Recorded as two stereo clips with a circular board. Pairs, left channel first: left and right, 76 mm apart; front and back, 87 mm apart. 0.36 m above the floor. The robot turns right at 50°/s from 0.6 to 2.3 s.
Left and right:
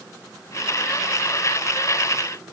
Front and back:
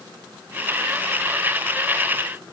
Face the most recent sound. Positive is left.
No sound to turn to.